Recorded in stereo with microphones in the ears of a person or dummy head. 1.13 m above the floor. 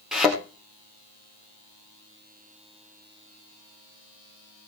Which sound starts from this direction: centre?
A thud, at 0.1 s.